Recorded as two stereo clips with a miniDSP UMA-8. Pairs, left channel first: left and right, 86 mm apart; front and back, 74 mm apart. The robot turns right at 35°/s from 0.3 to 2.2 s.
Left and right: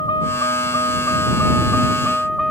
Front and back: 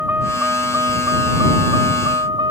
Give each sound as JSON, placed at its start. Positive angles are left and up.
{"t": 0.0, "sound": "a vehicle", "azimuth_deg": 115}